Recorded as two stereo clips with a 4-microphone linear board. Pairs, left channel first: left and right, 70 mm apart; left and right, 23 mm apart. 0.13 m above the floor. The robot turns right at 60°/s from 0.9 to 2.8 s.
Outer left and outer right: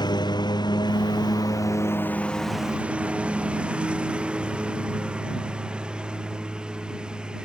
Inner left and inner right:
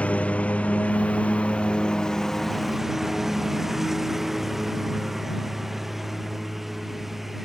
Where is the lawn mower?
85° left; by 7.5 s 10° right (ahead or behind).